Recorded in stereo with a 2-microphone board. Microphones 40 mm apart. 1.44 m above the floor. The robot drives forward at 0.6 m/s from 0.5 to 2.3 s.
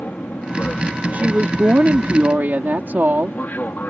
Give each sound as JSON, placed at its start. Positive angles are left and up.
{"t": 0.0, "sound": "an aircraft", "side_deg": 50}
{"t": 1.1, "sound": "a woman speaking", "side_deg": -45}